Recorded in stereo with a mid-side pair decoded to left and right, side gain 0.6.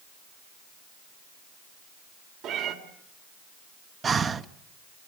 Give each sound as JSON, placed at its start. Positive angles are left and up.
{"t": 2.4, "sound": "a cat meowing", "azimuth_deg": -65, "distance_m": 3.5}
{"t": 4.0, "sound": "breathing", "azimuth_deg": -35, "distance_m": 1.1}